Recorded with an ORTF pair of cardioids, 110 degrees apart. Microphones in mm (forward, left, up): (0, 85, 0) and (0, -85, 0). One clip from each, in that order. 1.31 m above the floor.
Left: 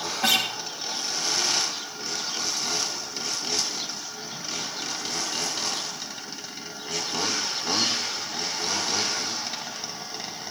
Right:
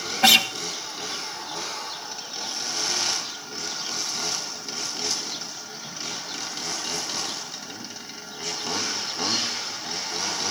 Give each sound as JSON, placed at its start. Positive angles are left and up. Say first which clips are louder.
{"t": 0.2, "sound": "a guitar", "louder": "right 6 dB", "azimuth_deg": -35, "distance_m": 1.5}